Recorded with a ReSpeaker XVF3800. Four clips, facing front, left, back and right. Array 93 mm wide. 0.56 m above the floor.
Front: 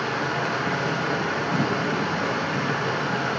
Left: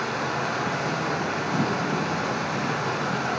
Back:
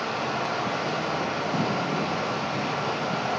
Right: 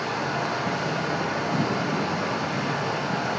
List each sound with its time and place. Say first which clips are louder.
0.0 s running water: even, front 2 dB; 20° left, 5 m